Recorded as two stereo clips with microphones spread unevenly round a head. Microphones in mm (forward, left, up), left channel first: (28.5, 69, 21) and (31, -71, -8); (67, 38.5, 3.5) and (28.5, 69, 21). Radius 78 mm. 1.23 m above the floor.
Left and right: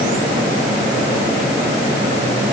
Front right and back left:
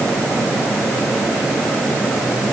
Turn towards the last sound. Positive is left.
No sound to turn to.